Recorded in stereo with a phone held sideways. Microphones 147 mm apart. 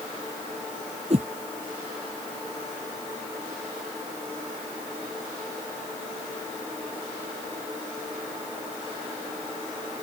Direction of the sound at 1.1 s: 45° right (ahead or behind).